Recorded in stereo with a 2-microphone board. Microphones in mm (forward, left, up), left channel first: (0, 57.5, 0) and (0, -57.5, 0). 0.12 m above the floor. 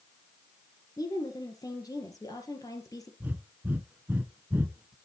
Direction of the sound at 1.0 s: 30° left (ahead or behind).